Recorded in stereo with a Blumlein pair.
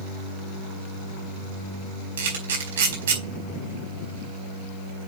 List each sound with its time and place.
2.2 s a camera shutter: 60° right, 4.5 m